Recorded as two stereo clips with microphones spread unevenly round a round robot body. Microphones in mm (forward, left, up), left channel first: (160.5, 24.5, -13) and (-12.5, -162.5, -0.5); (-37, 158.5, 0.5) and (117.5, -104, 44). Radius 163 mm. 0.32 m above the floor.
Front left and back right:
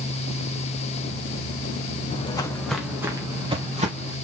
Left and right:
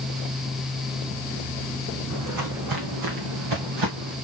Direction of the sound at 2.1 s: 20° right.